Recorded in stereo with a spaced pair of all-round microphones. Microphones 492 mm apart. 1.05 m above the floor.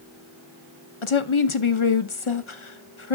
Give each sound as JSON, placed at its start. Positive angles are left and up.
{"t": 1.0, "sound": "a woman speaking", "side_deg": 70, "distance_m": 1.0}